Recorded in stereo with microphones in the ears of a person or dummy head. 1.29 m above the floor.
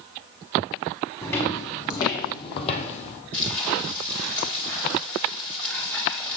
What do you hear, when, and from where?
1.2 s footsteps: 15° left (ahead or behind), 4 m; by 3.2 s 40° left (ahead or behind), 1.9 m
3.3 s frying: 10° left (ahead or behind), 3.5 m